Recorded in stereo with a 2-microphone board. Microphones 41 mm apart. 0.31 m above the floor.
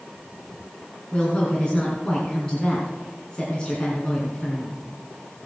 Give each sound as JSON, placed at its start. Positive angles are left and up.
{"t": 1.1, "sound": "a woman speaking", "side_deg": 20, "distance_m": 3.0}